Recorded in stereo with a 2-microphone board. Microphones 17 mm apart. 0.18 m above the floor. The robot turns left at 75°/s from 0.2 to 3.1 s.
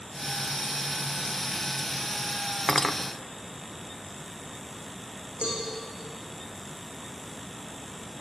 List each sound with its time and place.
2.7 s cutlery clinking: 15° left (ahead or behind), 0.6 m; by 3.0 s 20° left (ahead or behind), 0.6 m
5.4 s a cowbell: 70° right (ahead or behind), 6.5 m